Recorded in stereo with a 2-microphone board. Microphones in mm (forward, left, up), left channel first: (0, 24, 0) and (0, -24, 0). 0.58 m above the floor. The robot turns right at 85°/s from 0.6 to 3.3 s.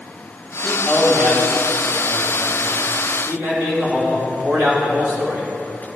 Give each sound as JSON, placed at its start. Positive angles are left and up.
{"t": 0.6, "sound": "a man speaking", "azimuth_deg": 10, "distance_m": 3.5}